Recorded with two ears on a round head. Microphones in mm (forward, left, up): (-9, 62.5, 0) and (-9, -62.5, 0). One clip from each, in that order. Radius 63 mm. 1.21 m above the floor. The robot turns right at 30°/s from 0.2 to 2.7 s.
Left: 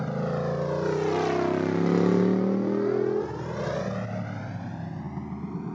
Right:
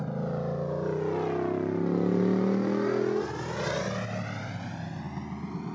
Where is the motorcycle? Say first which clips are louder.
Left 4 dB; 40° left (ahead or behind); by 5.8 s 55° right (ahead or behind).